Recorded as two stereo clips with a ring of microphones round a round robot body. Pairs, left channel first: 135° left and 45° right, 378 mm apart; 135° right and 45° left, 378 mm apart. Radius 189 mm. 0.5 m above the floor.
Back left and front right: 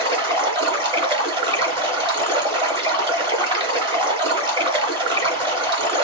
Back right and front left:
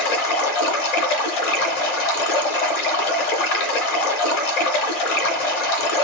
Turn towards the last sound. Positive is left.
turn(degrees=-120)